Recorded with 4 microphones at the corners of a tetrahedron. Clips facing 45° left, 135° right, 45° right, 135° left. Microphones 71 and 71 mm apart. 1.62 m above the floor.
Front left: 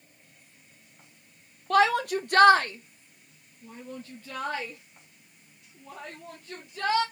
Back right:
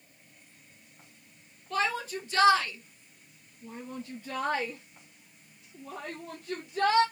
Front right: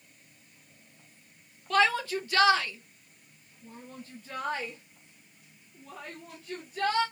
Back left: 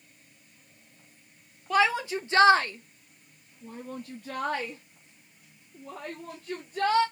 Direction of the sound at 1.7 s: 55° left.